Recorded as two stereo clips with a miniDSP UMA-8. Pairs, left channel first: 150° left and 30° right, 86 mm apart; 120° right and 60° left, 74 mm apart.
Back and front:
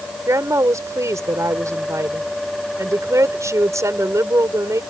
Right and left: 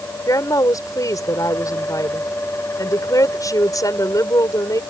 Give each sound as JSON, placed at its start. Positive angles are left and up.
{"t": 0.3, "sound": "a woman speaking", "azimuth_deg": -85}